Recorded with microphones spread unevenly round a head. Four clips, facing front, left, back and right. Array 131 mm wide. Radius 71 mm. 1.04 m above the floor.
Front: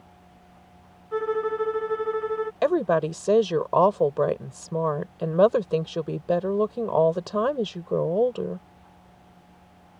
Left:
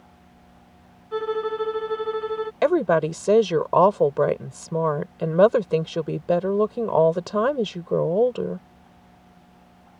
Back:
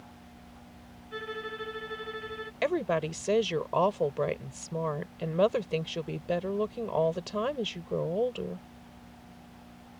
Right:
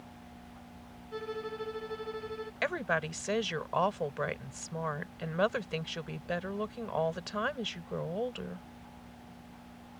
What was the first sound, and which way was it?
A violin, 45° left.